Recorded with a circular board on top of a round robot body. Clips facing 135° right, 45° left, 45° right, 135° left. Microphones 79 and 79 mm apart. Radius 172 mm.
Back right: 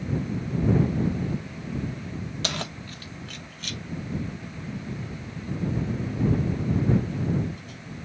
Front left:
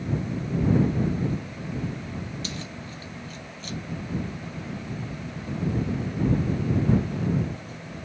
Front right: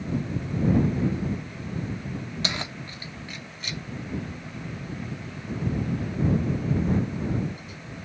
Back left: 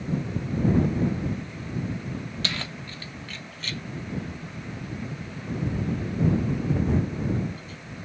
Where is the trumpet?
No trumpet in this recording.